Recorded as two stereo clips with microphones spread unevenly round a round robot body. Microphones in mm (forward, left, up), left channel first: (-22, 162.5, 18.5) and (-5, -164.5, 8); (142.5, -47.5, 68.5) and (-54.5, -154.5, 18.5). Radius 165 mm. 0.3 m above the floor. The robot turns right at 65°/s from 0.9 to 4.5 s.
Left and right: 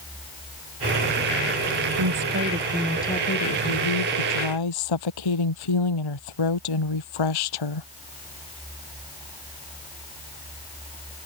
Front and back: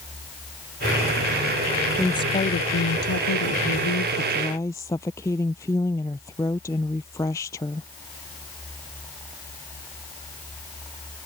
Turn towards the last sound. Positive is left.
turn(degrees=110)